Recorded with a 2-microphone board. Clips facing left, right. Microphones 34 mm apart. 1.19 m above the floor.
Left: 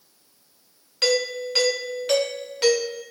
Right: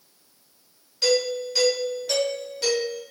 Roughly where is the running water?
No running water in this recording.